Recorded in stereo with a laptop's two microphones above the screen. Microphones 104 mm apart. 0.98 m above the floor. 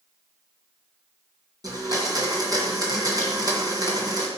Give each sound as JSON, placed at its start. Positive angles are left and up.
{"t": 1.6, "sound": "a blender", "side_deg": -35, "distance_m": 2.0}